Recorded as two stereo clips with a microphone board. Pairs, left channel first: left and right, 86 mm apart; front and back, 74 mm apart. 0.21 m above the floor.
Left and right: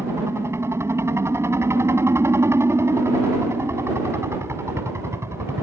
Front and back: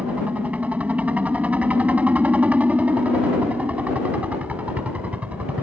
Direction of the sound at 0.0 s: 120° right.